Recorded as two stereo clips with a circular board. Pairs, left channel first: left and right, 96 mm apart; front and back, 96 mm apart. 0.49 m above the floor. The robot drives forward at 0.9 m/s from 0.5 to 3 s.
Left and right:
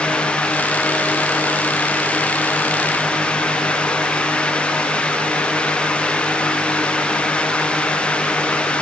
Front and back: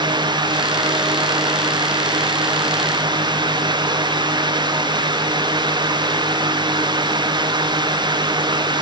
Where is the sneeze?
No sneeze in this recording.